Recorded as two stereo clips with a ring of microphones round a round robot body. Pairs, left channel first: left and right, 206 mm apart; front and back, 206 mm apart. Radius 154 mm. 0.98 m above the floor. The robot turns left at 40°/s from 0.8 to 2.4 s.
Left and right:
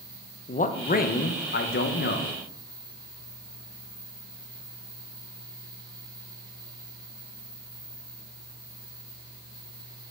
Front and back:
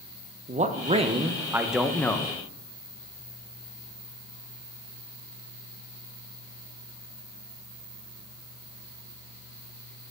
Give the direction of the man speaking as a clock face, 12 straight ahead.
8 o'clock.